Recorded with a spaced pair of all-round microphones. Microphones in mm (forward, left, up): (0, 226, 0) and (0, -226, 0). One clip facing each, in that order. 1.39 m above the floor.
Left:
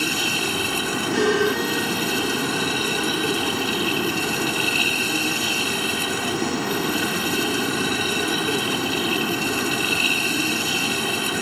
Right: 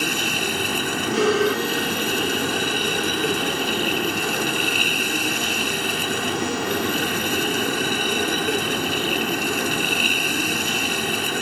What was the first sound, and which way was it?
A machine running, 20° left (ahead or behind).